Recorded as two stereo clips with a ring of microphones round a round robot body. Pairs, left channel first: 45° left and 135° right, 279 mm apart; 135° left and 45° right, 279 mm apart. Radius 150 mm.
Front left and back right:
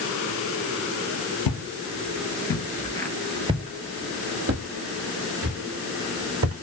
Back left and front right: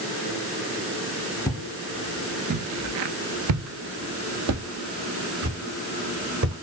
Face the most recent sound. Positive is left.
turn(degrees=-90)